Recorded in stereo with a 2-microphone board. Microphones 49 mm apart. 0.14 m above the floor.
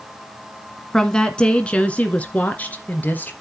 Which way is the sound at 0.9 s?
10° left (ahead or behind).